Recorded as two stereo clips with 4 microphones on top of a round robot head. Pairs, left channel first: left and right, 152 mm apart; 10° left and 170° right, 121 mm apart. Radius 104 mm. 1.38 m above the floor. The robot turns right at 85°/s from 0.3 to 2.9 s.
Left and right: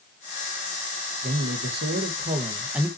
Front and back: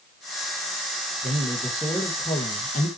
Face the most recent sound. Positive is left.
turn(degrees=5)